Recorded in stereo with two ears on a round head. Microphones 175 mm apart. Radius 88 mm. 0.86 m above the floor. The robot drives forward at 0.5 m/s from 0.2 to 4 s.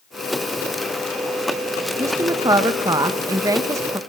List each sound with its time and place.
2.0 s a woman speaking: 15° right (ahead or behind), 1.0 m